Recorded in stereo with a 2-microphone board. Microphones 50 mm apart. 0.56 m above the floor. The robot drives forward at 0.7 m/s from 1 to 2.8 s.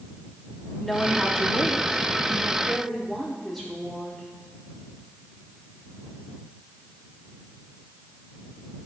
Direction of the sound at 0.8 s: 5° left (ahead or behind).